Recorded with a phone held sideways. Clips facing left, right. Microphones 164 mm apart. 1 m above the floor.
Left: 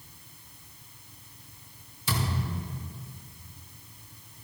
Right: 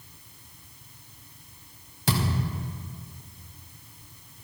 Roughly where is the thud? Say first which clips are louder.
Right 4 dB; right.